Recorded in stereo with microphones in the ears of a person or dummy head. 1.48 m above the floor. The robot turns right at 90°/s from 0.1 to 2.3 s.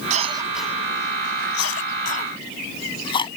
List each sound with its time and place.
0.1 s a cough: 45° right (ahead or behind); by 3.3 s 30° left (ahead or behind)